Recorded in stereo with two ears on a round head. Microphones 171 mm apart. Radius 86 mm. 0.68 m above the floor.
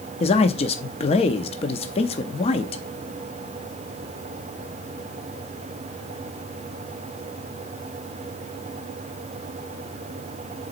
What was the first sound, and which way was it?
A man speaking, 30° left (ahead or behind).